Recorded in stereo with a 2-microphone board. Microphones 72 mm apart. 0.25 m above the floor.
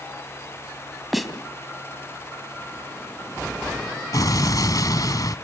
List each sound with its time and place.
1.1 s a snare drum: centre (ahead or behind), 2 m
4.1 s an explosion: 55° left (ahead or behind), 1.2 m